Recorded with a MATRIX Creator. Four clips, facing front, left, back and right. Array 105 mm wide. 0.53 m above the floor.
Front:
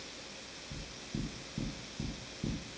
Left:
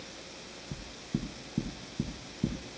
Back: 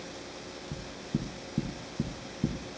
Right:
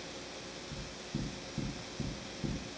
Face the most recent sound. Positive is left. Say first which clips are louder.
# left 6 dB, back 7 dB
turn(degrees=130)